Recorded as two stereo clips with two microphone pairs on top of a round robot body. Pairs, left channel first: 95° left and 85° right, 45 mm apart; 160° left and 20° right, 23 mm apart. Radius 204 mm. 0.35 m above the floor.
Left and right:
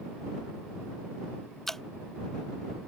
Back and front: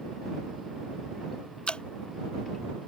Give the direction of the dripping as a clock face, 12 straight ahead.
6 o'clock.